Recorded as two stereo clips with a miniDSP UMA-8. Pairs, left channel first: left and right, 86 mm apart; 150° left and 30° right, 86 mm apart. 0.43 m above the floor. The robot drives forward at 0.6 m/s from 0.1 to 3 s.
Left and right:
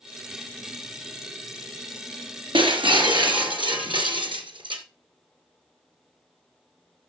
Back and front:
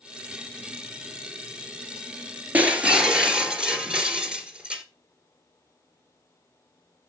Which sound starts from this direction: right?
Breaking glass, at 2.5 s.